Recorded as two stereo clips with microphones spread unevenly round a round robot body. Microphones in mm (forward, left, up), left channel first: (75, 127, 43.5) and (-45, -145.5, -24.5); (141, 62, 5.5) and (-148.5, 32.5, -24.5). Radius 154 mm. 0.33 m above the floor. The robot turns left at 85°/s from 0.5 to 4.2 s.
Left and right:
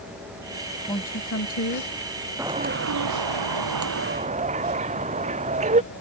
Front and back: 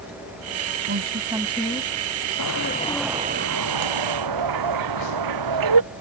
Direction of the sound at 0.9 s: 150° left.